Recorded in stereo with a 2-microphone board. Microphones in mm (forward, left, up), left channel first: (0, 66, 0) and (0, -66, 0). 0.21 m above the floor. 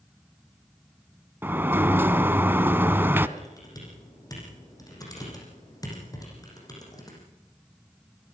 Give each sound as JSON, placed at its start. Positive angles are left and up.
{"t": 1.4, "sound": "a sliding door", "side_deg": -15, "distance_m": 0.9}
{"t": 3.4, "sound": "typing on a keyboard", "side_deg": 25, "distance_m": 8.5}